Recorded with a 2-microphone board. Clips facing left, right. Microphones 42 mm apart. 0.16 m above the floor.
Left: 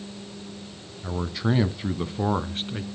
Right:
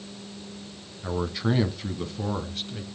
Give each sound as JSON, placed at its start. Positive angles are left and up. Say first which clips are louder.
{"t": 1.0, "sound": "a man speaking", "louder": "even", "side_deg": -10, "distance_m": 1.2}